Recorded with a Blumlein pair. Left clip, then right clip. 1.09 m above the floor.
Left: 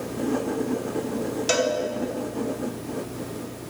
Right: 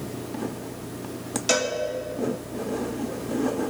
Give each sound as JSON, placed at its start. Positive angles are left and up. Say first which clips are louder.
{"t": 1.5, "sound": "a cowbell", "louder": "left 1 dB", "azimuth_deg": 0, "distance_m": 1.2}